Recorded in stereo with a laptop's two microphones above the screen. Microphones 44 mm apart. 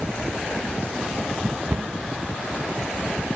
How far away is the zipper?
I don't hear a zipper.